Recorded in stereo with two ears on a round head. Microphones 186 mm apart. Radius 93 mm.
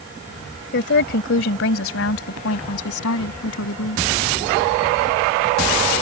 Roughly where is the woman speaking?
Left.